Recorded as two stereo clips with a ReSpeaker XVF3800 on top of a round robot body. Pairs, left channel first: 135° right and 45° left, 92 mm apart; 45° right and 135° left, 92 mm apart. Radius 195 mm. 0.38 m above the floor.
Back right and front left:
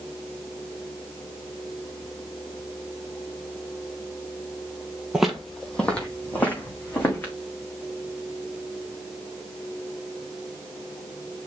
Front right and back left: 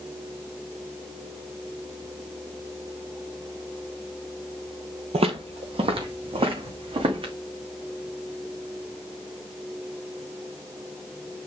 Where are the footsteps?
125° left, 0.8 m; by 7.3 s 155° left, 3 m.